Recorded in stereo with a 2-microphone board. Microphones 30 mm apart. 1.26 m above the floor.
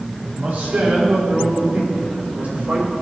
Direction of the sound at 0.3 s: 75° right (ahead or behind).